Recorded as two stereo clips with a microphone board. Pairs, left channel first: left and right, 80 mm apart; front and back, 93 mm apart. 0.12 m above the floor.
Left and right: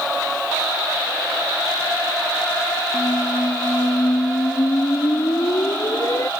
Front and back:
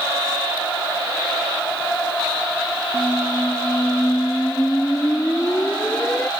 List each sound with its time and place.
2.9 s a squeak: 65° left